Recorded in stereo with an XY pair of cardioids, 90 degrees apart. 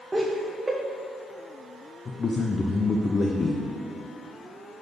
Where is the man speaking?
40° left, 0.7 m.